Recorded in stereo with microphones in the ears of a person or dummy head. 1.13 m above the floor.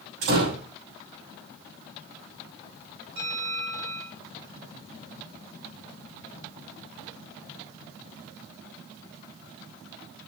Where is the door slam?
80° right, 7.5 m.